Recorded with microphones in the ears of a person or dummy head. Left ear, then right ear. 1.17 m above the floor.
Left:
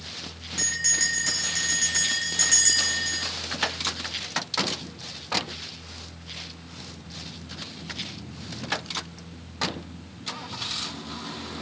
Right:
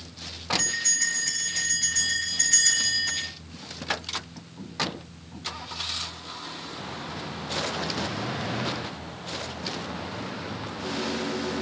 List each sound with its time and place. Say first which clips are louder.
0.6 s a bell: left 3 dB; 40° left (ahead or behind), 2 m